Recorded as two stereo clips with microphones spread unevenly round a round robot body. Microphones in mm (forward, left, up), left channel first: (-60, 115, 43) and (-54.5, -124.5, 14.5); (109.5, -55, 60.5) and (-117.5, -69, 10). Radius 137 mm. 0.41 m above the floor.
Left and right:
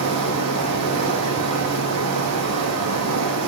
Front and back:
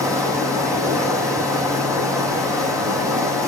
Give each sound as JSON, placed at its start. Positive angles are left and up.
{"t": 0.0, "sound": "running water", "azimuth_deg": -100, "distance_m": 5.0}